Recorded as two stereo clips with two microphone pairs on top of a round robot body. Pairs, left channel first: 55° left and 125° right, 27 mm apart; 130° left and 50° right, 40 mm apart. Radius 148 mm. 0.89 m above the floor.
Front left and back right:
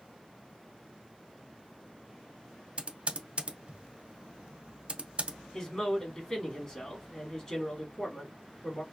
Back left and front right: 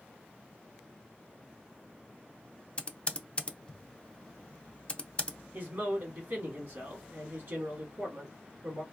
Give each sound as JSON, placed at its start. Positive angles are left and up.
{"t": 2.8, "sound": "typing on a keyboard", "azimuth_deg": -170, "distance_m": 0.6}
{"t": 5.5, "sound": "a man speaking", "azimuth_deg": -5, "distance_m": 1.9}